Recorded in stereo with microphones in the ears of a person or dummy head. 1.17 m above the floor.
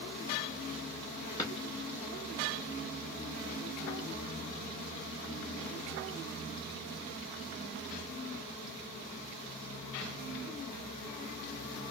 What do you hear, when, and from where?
1.4 s a drawer: 20° left (ahead or behind), 1.0 m